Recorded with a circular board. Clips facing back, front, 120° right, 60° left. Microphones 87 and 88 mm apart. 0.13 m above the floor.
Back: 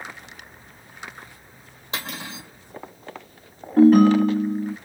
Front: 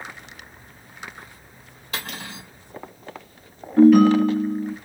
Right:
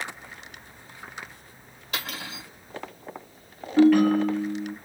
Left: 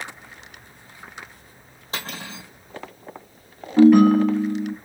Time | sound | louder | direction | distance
1.9 | cutlery clinking | even, left 2 dB | 120° left | 2.5 m
3.8 | a ringtone | front 1 dB, left 5 dB | 135° left | 2 m